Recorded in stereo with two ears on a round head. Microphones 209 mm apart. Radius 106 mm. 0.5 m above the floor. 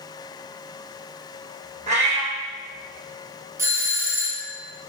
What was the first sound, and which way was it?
A cat meowing, 30° right (ahead or behind).